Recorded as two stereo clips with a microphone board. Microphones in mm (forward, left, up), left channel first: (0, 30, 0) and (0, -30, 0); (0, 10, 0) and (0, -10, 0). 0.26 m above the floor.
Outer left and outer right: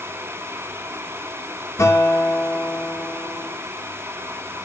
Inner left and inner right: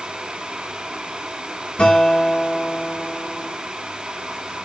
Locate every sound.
1.8 s a guitar: 45° left (ahead or behind), 6 m